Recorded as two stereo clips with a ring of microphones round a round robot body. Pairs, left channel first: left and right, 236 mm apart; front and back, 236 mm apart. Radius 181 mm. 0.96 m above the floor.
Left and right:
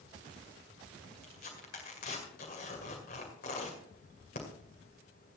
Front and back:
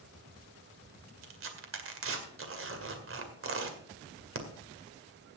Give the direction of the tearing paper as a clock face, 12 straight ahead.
7 o'clock.